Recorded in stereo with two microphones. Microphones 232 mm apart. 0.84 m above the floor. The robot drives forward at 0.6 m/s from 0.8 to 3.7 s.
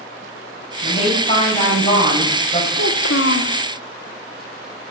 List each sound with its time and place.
0.8 s a woman speaking: 25° left (ahead or behind), 5.5 m; by 2.7 s 30° left (ahead or behind), 4.5 m
2.8 s a child speaking: 75° left (ahead or behind), 1.2 m; by 3.6 s 55° left (ahead or behind), 1.4 m